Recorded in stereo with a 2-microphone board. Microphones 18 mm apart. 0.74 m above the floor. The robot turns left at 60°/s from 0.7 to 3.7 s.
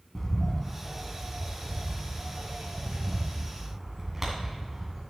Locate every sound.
0.1 s a bird: 15° left, 2 m; by 5.0 s 165° right, 2 m